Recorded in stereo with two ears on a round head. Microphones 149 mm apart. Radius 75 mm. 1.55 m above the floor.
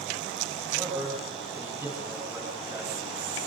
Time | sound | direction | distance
0.7 | a man speaking | 15° right (ahead or behind) | 9.5 m